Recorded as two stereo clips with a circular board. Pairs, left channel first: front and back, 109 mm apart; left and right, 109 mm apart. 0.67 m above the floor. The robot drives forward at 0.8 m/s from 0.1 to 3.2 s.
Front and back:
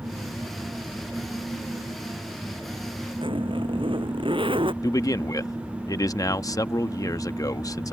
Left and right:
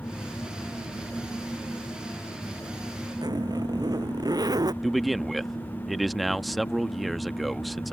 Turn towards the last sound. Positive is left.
turn(degrees=0)